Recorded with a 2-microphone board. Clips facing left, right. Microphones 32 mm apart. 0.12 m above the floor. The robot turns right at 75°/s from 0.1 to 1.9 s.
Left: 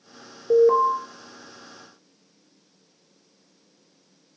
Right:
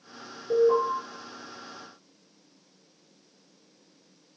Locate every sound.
0.5 s an alarm: 45° left (ahead or behind), 1.2 m